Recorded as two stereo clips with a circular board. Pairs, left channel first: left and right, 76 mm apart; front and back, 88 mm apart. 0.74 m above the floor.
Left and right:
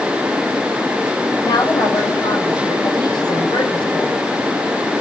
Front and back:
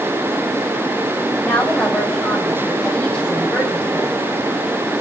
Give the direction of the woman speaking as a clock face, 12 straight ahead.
9 o'clock.